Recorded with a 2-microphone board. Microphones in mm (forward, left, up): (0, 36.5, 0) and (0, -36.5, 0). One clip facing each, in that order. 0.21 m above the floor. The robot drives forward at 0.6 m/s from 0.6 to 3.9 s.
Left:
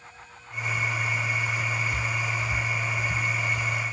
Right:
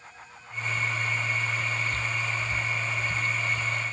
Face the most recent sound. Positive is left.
No sound to turn to.